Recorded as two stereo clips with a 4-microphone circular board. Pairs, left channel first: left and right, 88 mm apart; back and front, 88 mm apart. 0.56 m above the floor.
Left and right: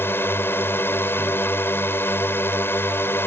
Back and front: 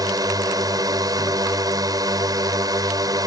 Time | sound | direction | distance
0.0 | a drone | 30° left | ?